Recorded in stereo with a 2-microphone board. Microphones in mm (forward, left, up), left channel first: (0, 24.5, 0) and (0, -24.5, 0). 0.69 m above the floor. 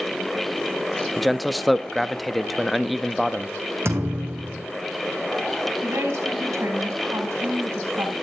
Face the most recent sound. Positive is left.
turn(degrees=-75)  # may be behind; listen again after turning